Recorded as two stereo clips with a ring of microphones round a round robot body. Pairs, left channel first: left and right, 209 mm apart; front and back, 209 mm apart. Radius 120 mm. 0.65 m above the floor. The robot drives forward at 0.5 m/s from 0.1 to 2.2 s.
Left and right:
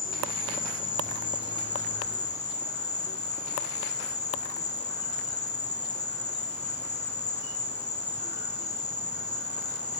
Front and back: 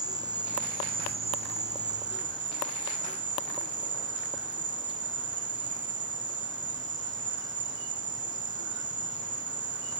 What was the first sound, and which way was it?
An insect, 110° left.